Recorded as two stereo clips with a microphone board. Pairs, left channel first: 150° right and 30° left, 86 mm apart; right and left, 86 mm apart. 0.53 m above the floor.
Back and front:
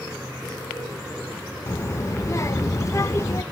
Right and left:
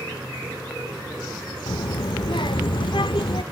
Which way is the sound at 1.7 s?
95° right.